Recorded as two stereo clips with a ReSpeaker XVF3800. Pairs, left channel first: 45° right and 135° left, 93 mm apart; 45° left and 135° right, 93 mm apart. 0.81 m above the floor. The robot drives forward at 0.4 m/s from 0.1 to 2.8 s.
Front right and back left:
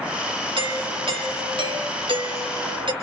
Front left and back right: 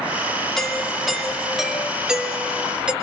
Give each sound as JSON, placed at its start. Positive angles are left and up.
{"t": 0.6, "sound": "a doorbell", "azimuth_deg": 130, "distance_m": 2.0}